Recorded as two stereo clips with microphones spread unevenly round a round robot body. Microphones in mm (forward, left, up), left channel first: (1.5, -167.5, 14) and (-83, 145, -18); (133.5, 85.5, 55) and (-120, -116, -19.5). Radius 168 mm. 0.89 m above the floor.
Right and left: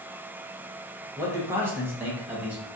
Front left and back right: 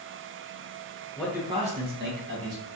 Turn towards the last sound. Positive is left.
turn(degrees=-170)